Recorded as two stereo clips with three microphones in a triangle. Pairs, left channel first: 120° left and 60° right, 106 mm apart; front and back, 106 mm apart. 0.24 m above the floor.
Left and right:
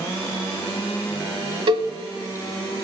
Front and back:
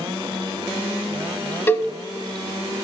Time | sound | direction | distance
1.7 | a cowbell | 65° right | 0.6 m